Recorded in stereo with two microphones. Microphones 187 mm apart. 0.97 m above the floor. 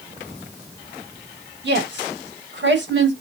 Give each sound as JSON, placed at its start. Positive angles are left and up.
{"t": 1.6, "sound": "a woman speaking", "side_deg": -75, "distance_m": 4.5}